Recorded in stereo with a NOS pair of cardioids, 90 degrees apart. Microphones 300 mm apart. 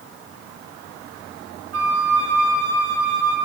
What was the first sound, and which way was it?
A flute, 50° right.